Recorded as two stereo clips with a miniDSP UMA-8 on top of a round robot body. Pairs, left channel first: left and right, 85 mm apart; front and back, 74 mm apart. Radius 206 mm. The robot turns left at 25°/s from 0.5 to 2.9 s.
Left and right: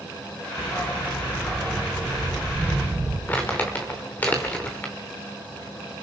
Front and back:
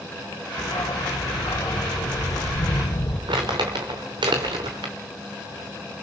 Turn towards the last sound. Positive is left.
turn(degrees=160)